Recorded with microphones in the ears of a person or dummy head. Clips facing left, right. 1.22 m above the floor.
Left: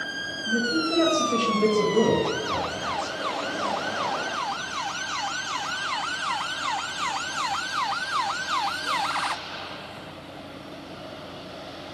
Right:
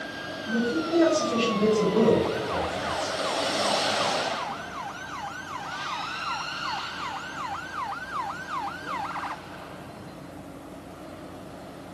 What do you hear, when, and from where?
0.5 s a man speaking: 20° left (ahead or behind), 0.6 m